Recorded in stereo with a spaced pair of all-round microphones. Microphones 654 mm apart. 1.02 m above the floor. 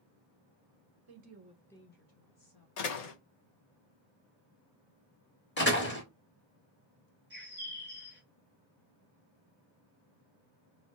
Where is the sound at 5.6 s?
15° left (ahead or behind), 0.9 m.